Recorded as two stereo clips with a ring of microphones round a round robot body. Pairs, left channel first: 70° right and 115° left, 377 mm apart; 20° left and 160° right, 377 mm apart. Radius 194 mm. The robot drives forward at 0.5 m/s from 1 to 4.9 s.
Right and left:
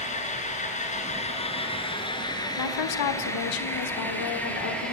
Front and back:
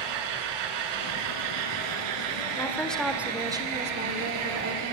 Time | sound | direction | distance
0.0 | an engine running | 140° right | 3 m
2.6 | a woman speaking | 60° right | 1.6 m